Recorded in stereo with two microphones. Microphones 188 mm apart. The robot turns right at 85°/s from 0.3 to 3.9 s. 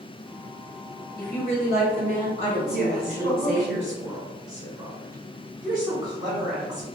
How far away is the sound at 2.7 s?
About 1.9 m.